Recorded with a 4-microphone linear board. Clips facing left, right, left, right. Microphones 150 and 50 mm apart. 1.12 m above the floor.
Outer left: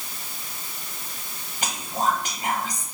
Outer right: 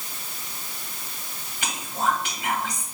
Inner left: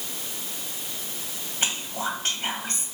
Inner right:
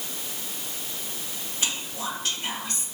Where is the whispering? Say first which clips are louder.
Outer left 1 dB, inner left 3 dB; 45° left (ahead or behind), 1.4 m.